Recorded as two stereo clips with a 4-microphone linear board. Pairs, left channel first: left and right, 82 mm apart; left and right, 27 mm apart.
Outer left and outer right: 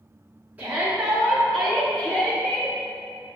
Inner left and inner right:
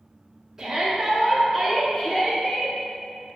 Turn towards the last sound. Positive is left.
turn(degrees=25)  # may be behind; listen again after turning